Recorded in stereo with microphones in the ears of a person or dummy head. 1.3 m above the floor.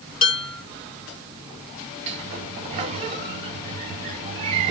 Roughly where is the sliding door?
Right.